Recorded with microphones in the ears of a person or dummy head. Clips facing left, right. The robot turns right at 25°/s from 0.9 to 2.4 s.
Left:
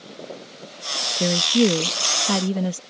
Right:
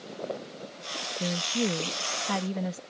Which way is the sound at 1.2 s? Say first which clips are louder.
Left 11 dB; 95° left.